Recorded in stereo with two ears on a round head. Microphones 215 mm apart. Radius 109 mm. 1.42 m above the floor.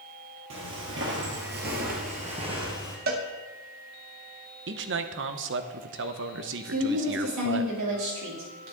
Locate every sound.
0.5 s footsteps: 55° right (ahead or behind), 2.5 m; by 3.0 s 15° right (ahead or behind), 2 m
3.1 s a cowbell: 40° right (ahead or behind), 1.0 m
4.7 s a man speaking: 50° right (ahead or behind), 0.8 m
6.7 s a woman speaking: 75° right (ahead or behind), 3 m